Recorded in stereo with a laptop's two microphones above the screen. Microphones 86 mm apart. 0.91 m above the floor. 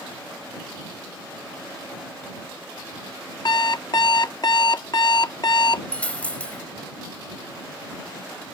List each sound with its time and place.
3.5 s an alarm clock: 55° left (ahead or behind)
5.9 s a dropped coin: 15° left (ahead or behind)